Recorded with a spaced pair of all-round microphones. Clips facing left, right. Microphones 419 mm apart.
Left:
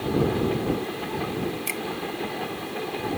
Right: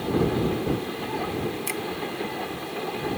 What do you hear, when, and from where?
1.7 s a finger snap: 20° left (ahead or behind)